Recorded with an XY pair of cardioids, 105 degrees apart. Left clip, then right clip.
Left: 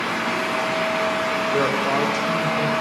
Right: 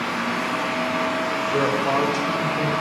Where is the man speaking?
5° left, 1.8 m.